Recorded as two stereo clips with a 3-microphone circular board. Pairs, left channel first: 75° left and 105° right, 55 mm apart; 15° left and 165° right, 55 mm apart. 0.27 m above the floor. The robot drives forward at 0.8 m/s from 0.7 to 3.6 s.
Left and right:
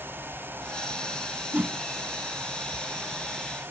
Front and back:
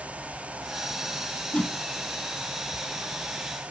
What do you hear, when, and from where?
1.5 s a whoosh: 45° right, 0.6 m; by 1.8 s 60° right, 0.5 m